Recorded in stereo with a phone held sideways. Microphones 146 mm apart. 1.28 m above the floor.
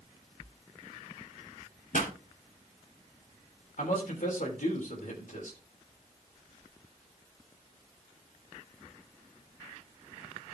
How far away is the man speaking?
About 3.5 m.